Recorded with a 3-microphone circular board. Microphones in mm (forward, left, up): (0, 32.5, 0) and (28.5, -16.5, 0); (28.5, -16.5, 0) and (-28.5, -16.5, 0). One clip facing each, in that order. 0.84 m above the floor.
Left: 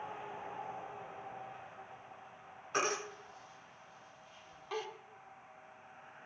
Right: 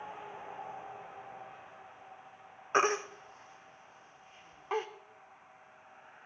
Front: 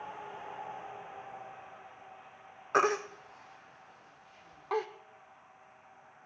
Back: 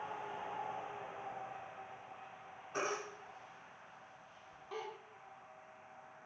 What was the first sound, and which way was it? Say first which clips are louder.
A baby crying: right 7 dB, front 11 dB; 5° right.